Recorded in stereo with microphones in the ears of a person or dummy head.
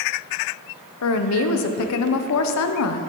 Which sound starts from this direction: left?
A woman speaking, at 1.0 s.